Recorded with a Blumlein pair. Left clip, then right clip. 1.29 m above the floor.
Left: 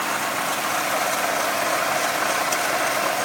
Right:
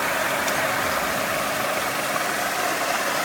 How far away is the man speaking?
No man speaking in this recording.